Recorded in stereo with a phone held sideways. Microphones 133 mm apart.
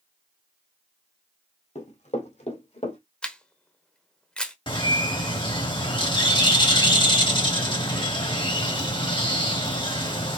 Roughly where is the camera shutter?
Centre.